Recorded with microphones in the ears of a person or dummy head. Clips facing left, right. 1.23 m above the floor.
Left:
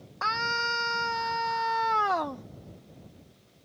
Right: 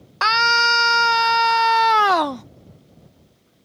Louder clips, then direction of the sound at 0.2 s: Right 11 dB; 85° right.